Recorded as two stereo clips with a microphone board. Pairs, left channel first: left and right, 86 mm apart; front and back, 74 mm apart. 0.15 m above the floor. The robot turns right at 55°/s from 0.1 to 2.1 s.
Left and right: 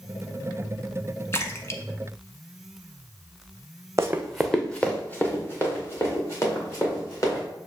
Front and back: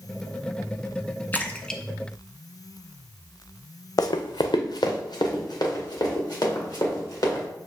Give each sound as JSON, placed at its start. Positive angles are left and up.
{"t": 1.3, "sound": "a splash", "azimuth_deg": 50, "distance_m": 0.5}
{"t": 4.0, "sound": "running footsteps", "azimuth_deg": -35, "distance_m": 0.6}